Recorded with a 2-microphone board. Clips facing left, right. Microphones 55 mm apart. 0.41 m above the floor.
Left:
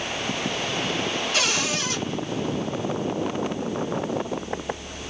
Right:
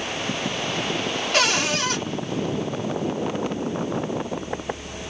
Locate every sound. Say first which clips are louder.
1.3 s a cupboard door: right 7 dB; 50° right (ahead or behind), 0.9 m